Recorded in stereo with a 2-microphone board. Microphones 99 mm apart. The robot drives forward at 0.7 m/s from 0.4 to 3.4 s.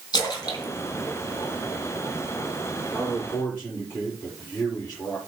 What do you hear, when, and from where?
0.1 s a splash: 40° left (ahead or behind), 2.5 m; by 2.1 s 30° left (ahead or behind), 3.5 m
2.9 s a man speaking: 20° left (ahead or behind), 6 m